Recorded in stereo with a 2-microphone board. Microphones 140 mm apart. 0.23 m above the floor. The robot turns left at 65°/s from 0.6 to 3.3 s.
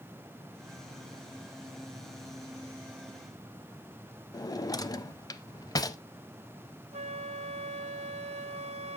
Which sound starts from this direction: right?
A flute, at 6.9 s.